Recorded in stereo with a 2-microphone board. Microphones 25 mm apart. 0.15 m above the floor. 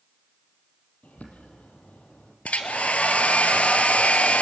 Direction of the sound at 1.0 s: 75° left (ahead or behind).